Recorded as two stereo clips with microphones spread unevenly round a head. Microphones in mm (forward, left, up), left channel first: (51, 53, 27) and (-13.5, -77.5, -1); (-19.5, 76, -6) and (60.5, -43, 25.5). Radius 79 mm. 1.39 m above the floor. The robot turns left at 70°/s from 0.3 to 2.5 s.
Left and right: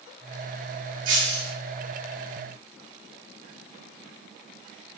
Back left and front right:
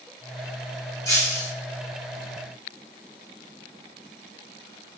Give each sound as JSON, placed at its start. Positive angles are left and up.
{"t": 1.1, "sound": "breaking glass", "azimuth_deg": -155, "distance_m": 4.5}